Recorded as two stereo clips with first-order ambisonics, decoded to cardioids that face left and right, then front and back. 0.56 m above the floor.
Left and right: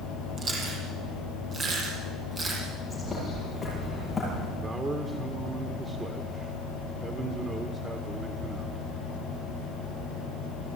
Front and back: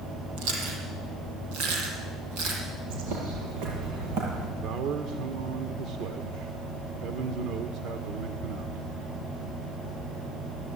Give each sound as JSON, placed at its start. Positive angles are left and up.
{"t": 0.4, "sound": "chewing", "azimuth_deg": -155, "distance_m": 7.5}
{"t": 2.9, "sound": "a bird", "azimuth_deg": 170, "distance_m": 8.5}
{"t": 4.6, "sound": "a man speaking", "azimuth_deg": -160, "distance_m": 1.6}